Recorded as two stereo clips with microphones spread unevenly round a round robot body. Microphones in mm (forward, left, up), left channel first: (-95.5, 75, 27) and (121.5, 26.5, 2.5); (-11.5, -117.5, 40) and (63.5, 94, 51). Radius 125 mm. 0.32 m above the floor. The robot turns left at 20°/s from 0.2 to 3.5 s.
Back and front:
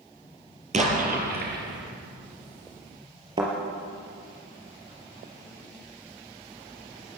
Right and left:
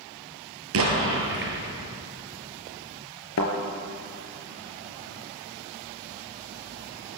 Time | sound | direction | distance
0.7 | an explosion | 45° left | 5 m
3.4 | a thud | 85° right | 3.5 m